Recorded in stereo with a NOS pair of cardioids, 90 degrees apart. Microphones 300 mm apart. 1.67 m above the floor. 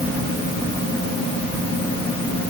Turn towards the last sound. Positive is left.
No sound to turn to.